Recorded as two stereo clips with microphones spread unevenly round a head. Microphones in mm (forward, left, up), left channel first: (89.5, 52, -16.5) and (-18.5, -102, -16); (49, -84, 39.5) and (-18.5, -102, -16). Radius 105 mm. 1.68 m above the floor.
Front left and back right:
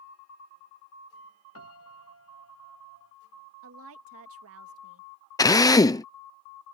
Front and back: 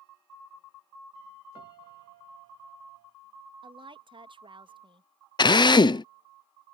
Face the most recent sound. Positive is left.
turn(degrees=-20)